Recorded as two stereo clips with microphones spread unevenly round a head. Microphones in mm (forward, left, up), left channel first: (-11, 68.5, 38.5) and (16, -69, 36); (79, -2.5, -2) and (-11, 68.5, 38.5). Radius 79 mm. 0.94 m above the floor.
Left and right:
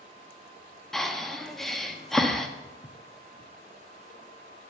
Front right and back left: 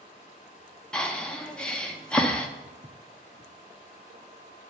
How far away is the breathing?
About 1.1 m.